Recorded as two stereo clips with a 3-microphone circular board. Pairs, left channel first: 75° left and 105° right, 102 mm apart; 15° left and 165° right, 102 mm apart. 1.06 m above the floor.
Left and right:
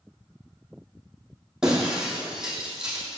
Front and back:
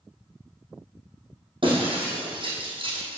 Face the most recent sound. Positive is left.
turn(degrees=170)